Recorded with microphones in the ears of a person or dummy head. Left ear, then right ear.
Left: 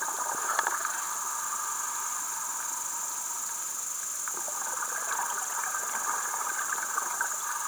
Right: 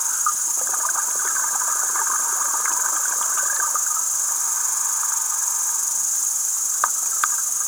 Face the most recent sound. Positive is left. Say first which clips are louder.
# right 8 dB
turn(degrees=-35)  # may be behind; listen again after turning